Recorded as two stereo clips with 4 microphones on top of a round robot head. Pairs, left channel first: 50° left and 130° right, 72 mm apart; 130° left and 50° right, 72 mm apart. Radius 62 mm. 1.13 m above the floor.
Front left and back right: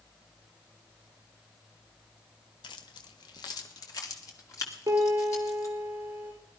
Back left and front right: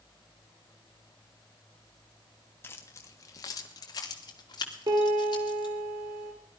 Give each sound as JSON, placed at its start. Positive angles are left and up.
{"t": 2.6, "sound": "keys jangling", "azimuth_deg": 70, "distance_m": 1.4}
{"t": 4.9, "sound": "a piano", "azimuth_deg": -70, "distance_m": 5.5}